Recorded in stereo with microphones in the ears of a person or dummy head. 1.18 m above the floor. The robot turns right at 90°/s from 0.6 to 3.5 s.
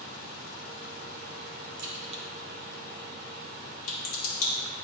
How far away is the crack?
About 2 m.